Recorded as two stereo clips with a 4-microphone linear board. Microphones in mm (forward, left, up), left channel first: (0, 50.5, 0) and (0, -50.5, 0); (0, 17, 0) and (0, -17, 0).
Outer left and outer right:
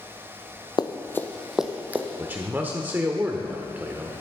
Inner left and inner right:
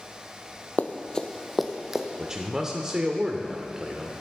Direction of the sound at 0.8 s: 50° left (ahead or behind).